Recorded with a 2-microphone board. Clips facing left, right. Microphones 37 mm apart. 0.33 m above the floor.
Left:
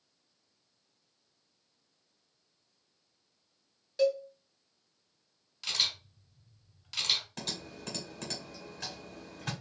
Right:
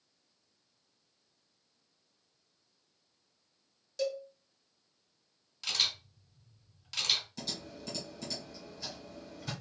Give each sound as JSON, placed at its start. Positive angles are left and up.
{"t": 4.0, "sound": "a cowbell", "side_deg": 20, "distance_m": 1.1}
{"t": 5.6, "sound": "a camera shutter", "side_deg": 5, "distance_m": 2.5}
{"t": 7.4, "sound": "typing on a keyboard", "side_deg": 60, "distance_m": 1.3}